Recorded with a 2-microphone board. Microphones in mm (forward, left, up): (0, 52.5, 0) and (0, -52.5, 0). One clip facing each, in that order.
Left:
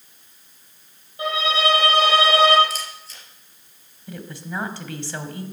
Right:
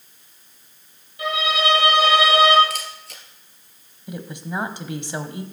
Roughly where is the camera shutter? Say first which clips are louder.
Right 1 dB; right.